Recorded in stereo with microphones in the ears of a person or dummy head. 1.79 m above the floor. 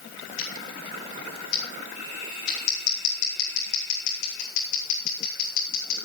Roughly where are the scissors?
Left.